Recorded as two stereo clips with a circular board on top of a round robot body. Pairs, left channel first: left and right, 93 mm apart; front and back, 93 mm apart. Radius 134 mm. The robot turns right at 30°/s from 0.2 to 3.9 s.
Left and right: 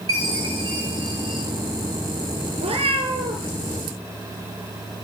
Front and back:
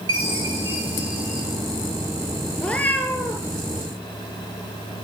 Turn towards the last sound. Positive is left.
turn(degrees=-45)